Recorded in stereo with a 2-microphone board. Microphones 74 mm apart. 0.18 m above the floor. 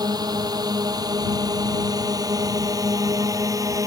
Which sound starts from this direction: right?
A drone, at 0.0 s.